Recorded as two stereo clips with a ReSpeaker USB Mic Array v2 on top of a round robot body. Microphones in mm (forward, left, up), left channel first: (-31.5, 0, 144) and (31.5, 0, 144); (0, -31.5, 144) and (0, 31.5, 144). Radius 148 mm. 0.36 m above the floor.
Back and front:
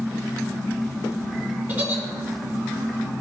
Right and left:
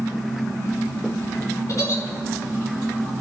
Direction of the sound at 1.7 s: 55° right.